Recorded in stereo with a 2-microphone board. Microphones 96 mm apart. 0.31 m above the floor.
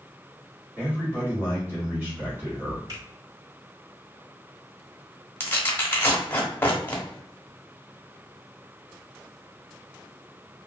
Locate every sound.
0.8 s a man speaking: 20° right (ahead or behind), 1.4 m
2.9 s a finger snap: 40° right (ahead or behind), 1.6 m
5.4 s tearing paper: 20° left (ahead or behind), 0.8 m